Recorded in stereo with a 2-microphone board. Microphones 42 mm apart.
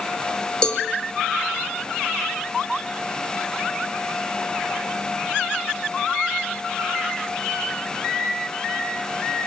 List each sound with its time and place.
0.6 s a cowbell: 20° left (ahead or behind), 2.0 m